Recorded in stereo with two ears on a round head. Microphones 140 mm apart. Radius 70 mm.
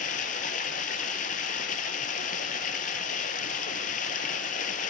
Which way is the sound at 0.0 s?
55° left (ahead or behind).